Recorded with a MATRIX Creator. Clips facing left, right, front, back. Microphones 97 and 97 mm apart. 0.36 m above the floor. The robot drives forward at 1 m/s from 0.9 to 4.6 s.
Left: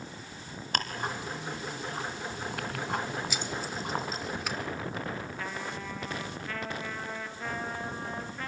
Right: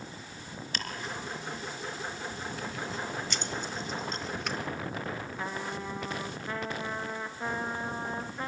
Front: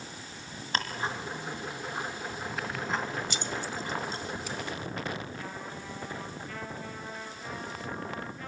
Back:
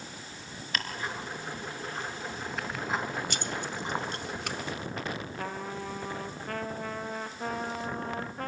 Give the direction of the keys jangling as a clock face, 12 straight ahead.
6 o'clock.